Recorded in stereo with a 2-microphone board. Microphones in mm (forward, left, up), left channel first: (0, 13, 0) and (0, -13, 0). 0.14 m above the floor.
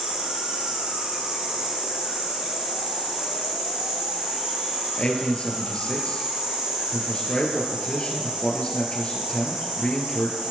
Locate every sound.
0.0 s an insect: 65° right (ahead or behind), 4.5 m
5.0 s a man speaking: 45° left (ahead or behind), 3 m